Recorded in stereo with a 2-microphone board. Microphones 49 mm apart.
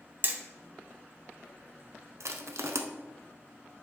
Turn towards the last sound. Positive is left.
turn(degrees=-75)  # may be behind; listen again after turning